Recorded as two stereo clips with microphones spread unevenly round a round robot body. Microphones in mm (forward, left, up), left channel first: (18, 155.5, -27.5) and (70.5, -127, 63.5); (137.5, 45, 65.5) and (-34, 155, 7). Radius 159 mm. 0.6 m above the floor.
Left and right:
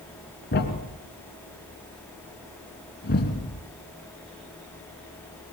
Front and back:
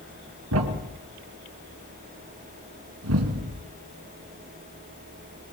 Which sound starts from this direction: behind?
A thud, at 0.5 s.